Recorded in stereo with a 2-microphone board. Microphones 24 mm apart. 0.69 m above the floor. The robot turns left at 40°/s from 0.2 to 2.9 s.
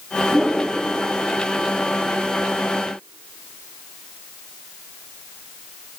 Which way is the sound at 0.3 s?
15° right (ahead or behind).